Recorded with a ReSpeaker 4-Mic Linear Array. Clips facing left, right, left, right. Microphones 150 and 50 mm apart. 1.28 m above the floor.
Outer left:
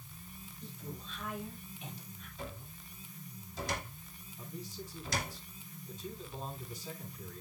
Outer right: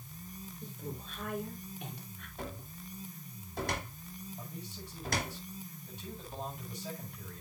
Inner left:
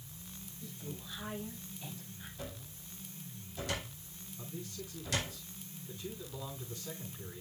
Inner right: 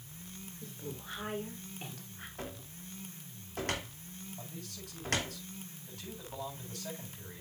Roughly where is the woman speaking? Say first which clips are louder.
Outer right 2 dB, inner right 1 dB; right.